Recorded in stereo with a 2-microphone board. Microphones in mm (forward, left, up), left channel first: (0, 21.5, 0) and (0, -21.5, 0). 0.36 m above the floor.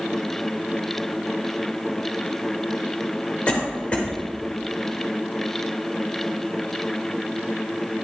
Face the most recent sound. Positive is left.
turn(degrees=25)  # may be behind; listen again after turning